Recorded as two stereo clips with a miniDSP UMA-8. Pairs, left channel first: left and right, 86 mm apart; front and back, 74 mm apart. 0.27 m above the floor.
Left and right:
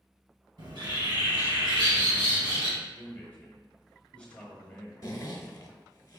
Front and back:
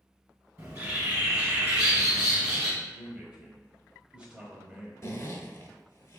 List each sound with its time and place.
0.6 s a bird: 120° right, 1.9 m
2.8 s a man speaking: 140° left, 0.9 m
5.0 s a zipper: 40° left, 0.6 m